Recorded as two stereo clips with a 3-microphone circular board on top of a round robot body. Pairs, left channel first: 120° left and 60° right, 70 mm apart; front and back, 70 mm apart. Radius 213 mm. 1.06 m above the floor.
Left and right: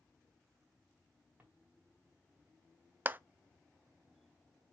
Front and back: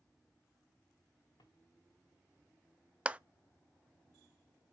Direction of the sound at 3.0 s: 110° right.